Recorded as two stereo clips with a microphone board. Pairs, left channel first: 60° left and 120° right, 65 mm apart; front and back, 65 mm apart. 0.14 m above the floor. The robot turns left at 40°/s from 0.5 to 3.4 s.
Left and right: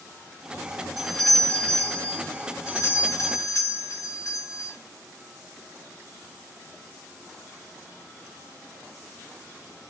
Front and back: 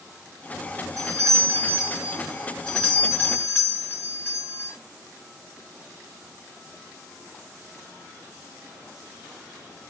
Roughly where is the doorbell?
Behind left.